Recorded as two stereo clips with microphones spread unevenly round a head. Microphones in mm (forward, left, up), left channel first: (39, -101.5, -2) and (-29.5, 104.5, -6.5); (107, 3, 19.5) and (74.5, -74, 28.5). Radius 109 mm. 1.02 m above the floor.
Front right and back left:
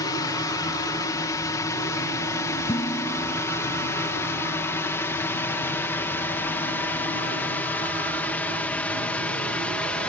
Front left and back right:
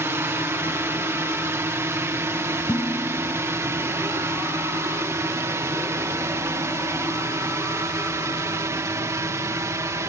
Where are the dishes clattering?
Straight ahead.